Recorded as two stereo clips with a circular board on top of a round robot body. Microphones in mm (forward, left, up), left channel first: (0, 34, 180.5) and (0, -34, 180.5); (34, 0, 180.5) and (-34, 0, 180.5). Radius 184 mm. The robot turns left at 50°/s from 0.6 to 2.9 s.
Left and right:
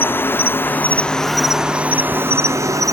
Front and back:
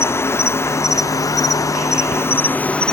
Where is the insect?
40° left; by 2.9 s 75° right.